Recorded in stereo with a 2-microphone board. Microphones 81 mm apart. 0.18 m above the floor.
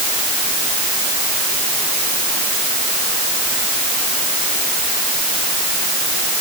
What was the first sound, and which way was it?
Only background noise.